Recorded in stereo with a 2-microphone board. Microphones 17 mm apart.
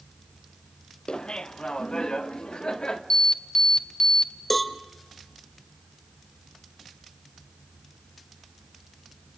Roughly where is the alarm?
Left.